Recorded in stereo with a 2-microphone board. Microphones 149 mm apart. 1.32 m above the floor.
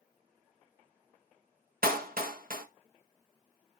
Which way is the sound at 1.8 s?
80° right.